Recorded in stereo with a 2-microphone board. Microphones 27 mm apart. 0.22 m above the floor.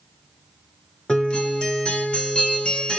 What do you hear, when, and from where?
1.1 s a guitar: 40° left (ahead or behind), 1.6 m